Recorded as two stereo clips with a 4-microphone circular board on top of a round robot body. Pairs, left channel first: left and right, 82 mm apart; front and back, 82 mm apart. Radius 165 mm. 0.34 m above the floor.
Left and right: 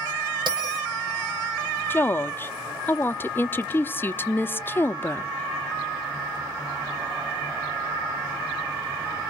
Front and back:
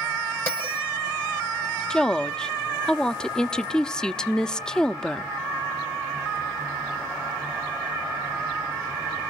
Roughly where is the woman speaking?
Left.